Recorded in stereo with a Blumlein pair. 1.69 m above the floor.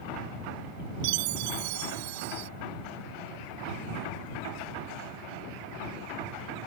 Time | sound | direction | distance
1.0 | a chime | 50° right | ?